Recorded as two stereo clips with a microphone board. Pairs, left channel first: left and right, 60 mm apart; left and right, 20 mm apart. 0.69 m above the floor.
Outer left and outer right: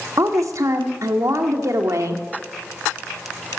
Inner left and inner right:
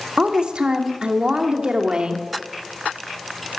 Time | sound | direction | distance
0.2 | a woman speaking | 65° right (ahead or behind) | 1.4 m